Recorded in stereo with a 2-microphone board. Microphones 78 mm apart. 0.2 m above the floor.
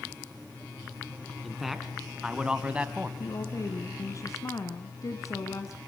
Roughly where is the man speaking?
Centre.